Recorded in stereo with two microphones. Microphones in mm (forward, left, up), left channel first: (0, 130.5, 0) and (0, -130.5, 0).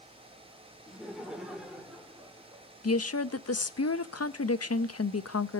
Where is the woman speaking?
65° left (ahead or behind), 0.7 m.